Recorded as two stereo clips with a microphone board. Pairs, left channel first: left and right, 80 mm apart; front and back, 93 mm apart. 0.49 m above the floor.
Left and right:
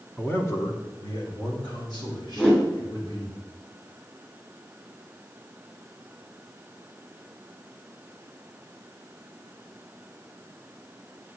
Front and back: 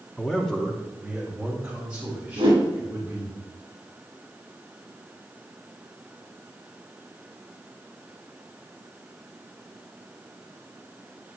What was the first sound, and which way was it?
A man speaking, 50° left.